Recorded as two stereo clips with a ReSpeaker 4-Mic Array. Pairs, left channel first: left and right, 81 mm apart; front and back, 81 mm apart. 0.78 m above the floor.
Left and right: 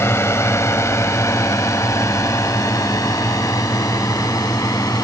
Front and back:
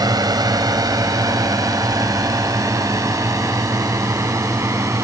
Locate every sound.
0.0 s a drone: 145° left; by 5.0 s 130° left